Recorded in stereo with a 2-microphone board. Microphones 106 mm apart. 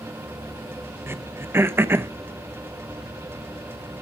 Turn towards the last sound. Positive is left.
turn(degrees=-20)  # may be behind; listen again after turning